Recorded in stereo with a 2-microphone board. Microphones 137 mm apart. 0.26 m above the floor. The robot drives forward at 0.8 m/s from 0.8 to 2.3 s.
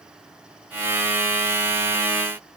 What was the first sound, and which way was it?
Only background noise.